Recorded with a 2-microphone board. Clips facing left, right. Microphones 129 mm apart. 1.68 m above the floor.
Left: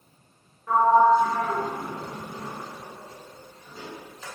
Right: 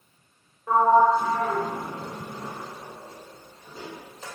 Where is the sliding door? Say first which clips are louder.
Even; 30° right (ahead or behind), 1.5 m.